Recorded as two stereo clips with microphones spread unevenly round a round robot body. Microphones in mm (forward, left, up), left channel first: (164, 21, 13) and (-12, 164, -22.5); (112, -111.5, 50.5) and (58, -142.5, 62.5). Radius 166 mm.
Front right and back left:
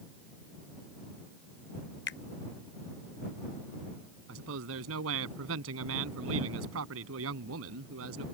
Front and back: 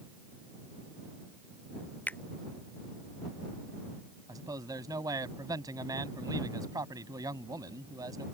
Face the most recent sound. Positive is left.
turn(degrees=170)